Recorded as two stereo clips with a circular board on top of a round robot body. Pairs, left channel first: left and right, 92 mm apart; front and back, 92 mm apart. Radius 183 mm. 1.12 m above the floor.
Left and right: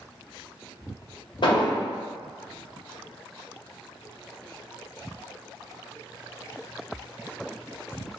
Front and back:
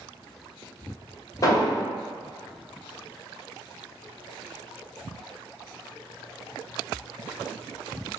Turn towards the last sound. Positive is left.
turn(degrees=55)